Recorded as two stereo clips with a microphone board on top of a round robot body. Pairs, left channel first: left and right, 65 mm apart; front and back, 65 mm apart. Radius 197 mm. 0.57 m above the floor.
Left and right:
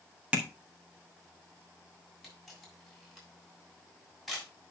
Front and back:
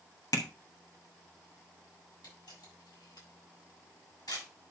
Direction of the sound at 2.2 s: Straight ahead.